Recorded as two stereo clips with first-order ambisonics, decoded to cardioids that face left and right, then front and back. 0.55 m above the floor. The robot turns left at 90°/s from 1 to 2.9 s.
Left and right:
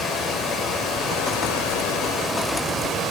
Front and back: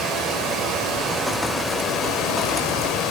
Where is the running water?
140° left, 0.9 m; by 3.1 s 30° right, 0.9 m.